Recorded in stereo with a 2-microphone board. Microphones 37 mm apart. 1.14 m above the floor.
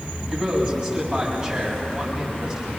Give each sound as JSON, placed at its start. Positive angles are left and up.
{"t": 0.3, "sound": "a man speaking", "side_deg": -25, "distance_m": 7.0}